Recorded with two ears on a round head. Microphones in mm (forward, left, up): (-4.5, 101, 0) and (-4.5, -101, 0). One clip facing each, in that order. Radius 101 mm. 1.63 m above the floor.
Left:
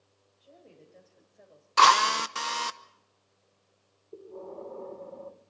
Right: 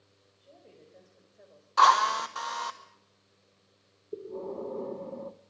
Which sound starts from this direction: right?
Breathing, at 4.1 s.